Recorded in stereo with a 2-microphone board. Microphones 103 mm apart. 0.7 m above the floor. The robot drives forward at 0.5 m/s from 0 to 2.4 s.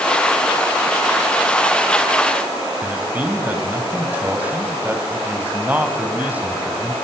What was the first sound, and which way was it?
A man speaking, 15° right (ahead or behind).